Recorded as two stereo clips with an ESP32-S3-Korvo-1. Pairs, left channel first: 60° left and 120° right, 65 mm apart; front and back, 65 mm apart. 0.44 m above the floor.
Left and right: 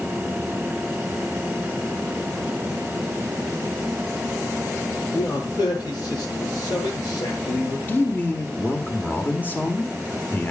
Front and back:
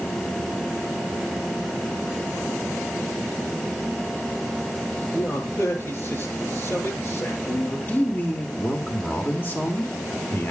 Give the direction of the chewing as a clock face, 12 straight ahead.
I don't hear chewing.